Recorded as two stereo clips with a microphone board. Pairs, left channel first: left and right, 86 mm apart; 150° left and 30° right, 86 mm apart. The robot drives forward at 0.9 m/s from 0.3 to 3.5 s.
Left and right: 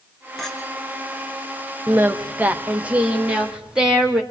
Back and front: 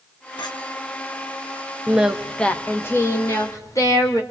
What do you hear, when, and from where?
0.4 s a clink: 175° left, 2.5 m
1.9 s singing: 75° right, 0.9 m; by 4.2 s 165° right, 1.7 m